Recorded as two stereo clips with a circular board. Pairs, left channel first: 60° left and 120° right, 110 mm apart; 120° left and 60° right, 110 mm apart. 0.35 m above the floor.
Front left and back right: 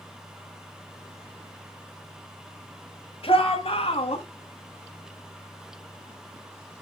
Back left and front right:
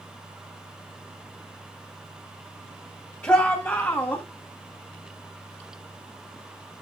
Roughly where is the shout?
Ahead left.